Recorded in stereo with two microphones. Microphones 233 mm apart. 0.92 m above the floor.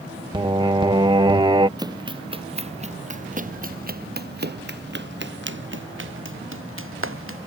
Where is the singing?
20° right (ahead or behind).